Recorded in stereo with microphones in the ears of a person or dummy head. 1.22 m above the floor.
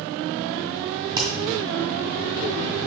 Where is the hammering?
20° right (ahead or behind), 1.9 m.